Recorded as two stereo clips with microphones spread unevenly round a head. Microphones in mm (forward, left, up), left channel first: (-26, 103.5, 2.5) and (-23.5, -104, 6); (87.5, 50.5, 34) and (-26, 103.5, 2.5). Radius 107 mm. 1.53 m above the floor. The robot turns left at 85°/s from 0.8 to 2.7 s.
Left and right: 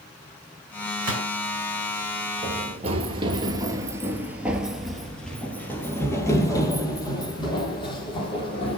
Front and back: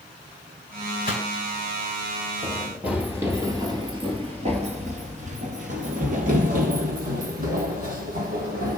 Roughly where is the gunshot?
Ahead right.